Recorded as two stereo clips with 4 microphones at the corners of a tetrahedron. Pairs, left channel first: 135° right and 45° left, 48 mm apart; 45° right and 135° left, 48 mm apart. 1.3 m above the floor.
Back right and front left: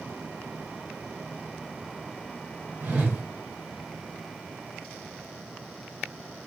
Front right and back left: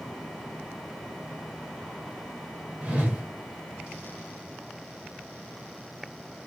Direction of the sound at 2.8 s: 80° left.